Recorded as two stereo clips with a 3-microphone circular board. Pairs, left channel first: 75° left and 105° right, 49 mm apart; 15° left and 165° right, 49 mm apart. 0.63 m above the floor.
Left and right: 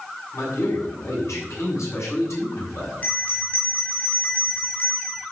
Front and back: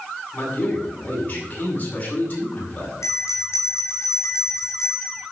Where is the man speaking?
70° left, 6 m.